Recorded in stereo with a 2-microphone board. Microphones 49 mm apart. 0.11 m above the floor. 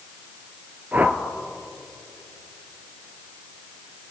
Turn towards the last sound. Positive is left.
turn(degrees=-35)  # may be behind; listen again after turning